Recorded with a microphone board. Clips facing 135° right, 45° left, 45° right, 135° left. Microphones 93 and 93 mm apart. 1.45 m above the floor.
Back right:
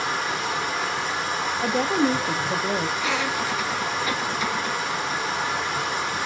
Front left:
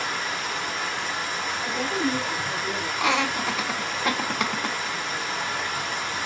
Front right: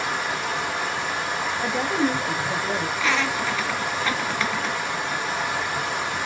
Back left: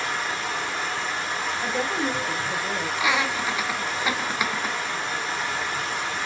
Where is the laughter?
55° left, 0.8 m.